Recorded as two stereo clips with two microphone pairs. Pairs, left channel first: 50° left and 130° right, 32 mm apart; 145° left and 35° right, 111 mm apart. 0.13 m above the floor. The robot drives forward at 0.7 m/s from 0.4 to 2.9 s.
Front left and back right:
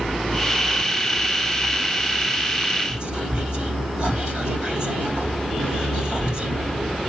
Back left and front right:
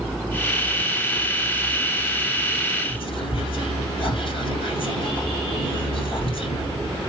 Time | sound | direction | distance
2.9 | whispering | 170° left | 3 m